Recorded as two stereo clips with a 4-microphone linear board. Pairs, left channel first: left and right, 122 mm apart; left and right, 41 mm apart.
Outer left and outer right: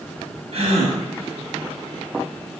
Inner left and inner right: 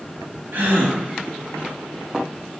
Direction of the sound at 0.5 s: 55° right (ahead or behind).